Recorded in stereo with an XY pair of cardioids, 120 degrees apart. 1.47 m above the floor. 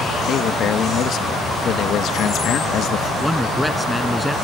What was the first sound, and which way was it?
A man speaking, 60° left.